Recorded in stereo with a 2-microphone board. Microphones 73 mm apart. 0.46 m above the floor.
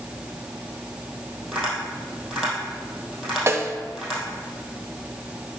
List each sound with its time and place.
1.5 s tapping: centre (ahead or behind), 3 m
3.5 s a snare drum: 40° right (ahead or behind), 0.6 m